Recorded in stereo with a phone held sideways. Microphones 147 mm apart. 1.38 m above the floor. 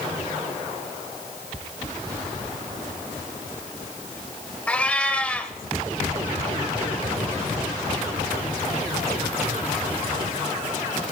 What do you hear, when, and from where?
4.7 s a cat meowing: 10° left (ahead or behind), 1.4 m